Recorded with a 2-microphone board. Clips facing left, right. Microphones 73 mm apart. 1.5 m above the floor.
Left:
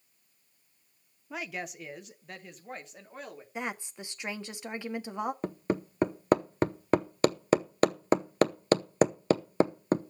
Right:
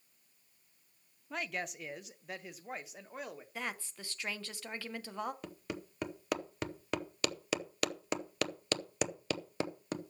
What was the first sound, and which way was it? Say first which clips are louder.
A woman speaking: left 1 dB; 5° left (ahead or behind).